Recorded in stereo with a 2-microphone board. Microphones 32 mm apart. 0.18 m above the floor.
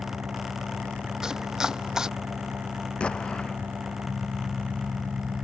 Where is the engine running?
85° right.